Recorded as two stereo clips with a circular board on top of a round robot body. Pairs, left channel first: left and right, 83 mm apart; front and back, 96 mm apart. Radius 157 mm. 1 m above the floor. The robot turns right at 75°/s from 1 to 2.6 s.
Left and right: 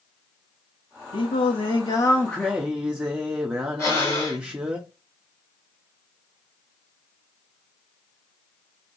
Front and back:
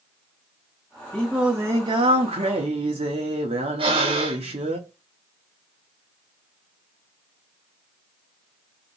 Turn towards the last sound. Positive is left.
turn(degrees=145)